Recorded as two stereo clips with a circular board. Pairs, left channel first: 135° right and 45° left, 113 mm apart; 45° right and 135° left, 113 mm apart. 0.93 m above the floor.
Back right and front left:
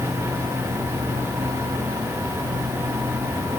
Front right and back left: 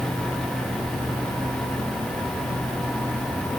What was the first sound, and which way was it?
Only background noise.